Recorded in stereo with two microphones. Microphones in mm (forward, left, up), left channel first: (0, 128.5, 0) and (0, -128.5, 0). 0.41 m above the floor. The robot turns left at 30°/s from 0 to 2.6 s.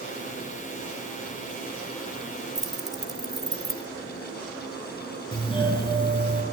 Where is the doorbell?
20° left (ahead or behind), 5 m.